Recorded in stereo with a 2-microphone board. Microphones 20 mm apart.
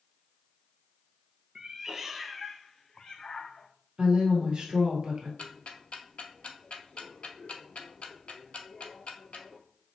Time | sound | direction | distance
1.6 | a cat meowing | 40° right (ahead or behind) | 0.7 m
4.0 | a woman speaking | 50° right (ahead or behind) | 1.8 m
5.4 | ticking | 75° left (ahead or behind) | 0.7 m